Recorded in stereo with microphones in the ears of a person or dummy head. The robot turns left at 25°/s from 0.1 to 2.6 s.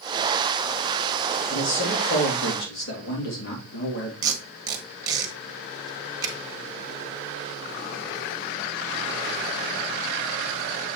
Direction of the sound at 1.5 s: 40° left (ahead or behind).